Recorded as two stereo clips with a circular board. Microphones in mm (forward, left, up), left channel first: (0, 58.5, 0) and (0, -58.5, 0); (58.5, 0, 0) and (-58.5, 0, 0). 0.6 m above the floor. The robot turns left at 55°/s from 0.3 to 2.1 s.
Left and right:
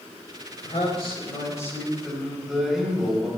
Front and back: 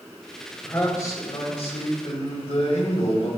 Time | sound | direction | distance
0.6 | a man speaking | 80° left | 4 m